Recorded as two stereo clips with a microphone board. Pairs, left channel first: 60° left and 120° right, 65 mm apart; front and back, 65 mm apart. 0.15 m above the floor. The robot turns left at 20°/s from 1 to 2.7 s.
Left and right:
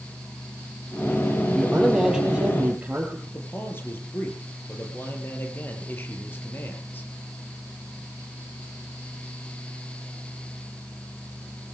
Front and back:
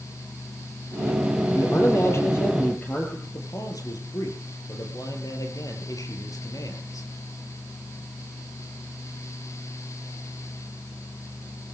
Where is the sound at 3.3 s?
5° left, 4 m.